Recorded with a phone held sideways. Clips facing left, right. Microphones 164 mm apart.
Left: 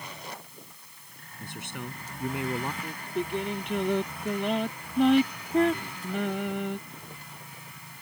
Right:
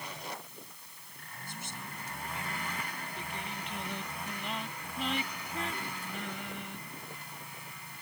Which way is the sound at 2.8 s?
70° left (ahead or behind).